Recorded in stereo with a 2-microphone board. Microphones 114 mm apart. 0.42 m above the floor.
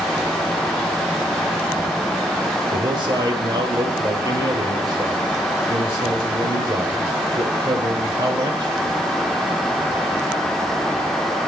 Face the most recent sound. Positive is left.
turn(degrees=-40)  # may be behind; listen again after turning